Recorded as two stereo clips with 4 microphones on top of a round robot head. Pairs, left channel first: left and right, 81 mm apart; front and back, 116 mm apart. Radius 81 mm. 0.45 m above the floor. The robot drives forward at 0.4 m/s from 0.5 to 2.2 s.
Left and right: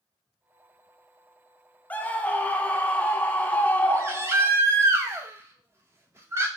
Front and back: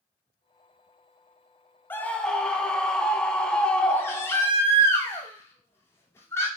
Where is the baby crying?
55° right, 1.0 m.